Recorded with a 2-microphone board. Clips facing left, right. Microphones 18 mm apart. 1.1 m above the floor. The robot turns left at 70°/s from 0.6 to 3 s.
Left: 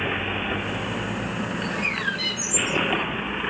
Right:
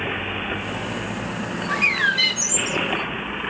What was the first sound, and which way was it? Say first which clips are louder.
A bird: right 9 dB; 60° right.